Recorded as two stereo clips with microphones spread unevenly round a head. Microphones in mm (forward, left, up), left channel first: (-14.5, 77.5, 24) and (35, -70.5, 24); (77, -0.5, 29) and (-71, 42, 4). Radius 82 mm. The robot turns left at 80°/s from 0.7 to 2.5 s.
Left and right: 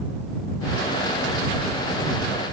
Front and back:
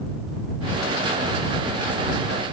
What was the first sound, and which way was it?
Only background noise.